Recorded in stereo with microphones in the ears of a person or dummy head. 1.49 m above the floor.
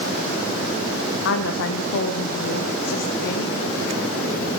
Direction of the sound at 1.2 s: 75° left (ahead or behind).